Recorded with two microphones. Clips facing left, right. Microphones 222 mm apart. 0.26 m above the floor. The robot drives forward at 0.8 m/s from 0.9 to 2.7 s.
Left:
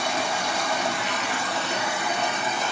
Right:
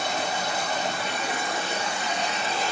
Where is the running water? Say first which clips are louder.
Left 1 dB; 80° left, 1.5 m; by 2.7 s 50° left (ahead or behind), 2 m.